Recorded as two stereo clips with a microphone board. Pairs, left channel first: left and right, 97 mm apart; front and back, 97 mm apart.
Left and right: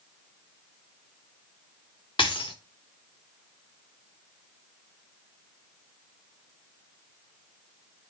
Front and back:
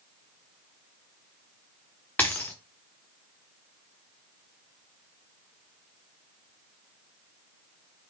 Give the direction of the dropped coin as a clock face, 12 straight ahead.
10 o'clock.